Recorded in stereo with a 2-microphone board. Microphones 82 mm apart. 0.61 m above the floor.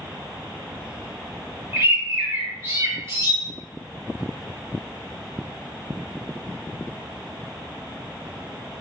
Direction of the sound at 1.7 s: 35° right (ahead or behind).